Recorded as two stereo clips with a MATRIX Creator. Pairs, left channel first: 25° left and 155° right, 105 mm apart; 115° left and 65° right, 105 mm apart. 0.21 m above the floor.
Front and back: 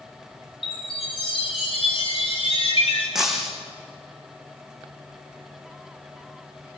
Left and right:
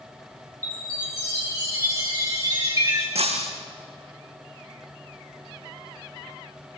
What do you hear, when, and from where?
0.6 s a chime: 10° right, 6 m
3.1 s breaking glass: 70° right, 5.5 m